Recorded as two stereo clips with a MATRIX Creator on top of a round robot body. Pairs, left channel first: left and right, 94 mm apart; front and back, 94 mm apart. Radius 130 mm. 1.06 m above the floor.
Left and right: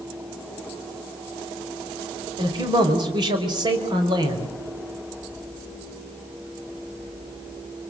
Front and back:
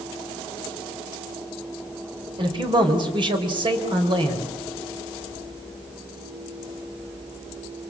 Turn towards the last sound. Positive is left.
turn(degrees=-135)